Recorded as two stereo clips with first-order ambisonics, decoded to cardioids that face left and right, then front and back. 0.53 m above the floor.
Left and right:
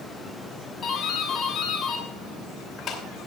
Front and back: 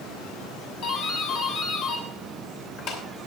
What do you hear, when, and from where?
0.8 s a doorbell: 25° left, 2.5 m